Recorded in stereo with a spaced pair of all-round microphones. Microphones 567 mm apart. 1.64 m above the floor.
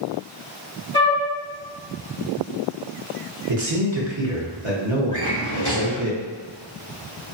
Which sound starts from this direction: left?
A drawer, at 5.1 s.